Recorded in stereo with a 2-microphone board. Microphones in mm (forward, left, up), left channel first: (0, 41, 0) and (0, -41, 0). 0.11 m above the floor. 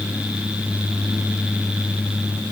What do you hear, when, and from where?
Only background noise.